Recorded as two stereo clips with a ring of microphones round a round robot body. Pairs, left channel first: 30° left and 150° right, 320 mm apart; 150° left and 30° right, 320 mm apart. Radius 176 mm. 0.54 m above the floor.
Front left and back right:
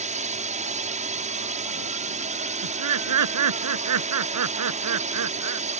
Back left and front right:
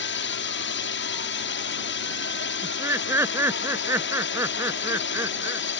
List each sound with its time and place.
0.0 s a drone: 160° left
2.6 s laughter: 115° right